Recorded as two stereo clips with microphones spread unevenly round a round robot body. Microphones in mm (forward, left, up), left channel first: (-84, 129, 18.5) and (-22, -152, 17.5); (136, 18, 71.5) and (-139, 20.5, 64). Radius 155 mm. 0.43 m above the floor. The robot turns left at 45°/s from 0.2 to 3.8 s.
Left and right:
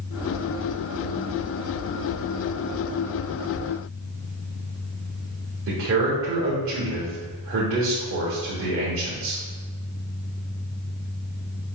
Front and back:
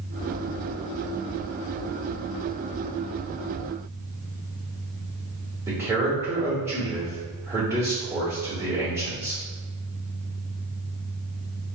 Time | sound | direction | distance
5.7 | a man speaking | 105° right | 1.2 m